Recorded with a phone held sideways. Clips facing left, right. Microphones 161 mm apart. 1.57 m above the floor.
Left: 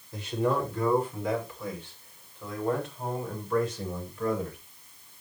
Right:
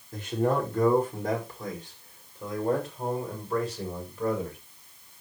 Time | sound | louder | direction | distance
0.1 | a man speaking | right 1 dB | 50° right (ahead or behind) | 5.5 m